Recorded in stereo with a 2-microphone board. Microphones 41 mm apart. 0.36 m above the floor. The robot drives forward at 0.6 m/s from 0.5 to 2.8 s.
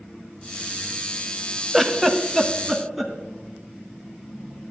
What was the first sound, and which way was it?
A giggle, 5° left (ahead or behind).